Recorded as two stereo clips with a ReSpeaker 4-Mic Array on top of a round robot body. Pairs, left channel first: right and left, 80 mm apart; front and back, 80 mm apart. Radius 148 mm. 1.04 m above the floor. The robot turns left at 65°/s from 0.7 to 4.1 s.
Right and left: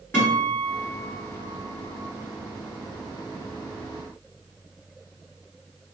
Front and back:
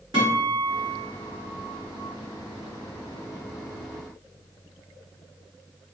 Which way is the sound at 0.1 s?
160° right.